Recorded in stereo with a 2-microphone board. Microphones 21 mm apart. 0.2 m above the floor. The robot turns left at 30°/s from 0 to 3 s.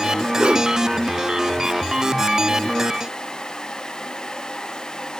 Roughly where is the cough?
No cough in this recording.